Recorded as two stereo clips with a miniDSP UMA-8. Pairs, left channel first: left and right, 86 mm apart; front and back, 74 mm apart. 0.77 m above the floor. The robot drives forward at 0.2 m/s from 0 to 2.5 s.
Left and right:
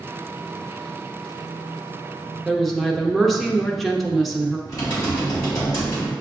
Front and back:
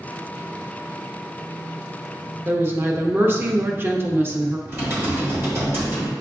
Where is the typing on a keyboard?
130° left, 1.5 m.